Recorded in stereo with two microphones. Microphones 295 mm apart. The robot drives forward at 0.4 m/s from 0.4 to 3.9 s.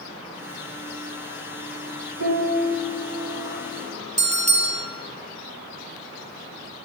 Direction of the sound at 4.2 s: 25° right (ahead or behind).